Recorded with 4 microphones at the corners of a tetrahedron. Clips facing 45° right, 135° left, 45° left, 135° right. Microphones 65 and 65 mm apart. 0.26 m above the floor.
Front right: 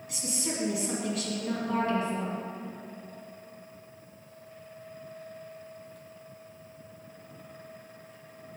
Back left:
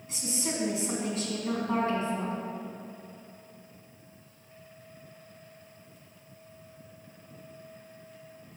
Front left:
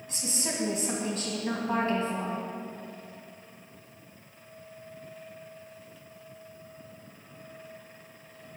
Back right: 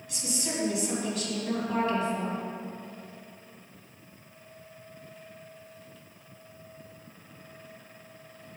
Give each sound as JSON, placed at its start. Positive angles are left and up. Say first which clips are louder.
{"t": 0.1, "sound": "a woman speaking", "louder": "back left 1 dB, back right 1 dB", "azimuth_deg": 85, "distance_m": 1.8}